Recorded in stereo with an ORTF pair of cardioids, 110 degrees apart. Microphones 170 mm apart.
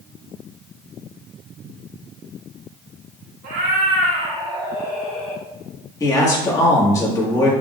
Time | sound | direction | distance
3.4 | a cat meowing | 70° right | 1.4 m
6.0 | a man speaking | 20° left | 1.6 m